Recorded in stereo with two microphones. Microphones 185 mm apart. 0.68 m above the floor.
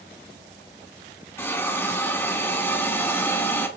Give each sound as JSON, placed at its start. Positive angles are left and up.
{"t": 1.4, "sound": "a hiss", "side_deg": 15, "distance_m": 1.3}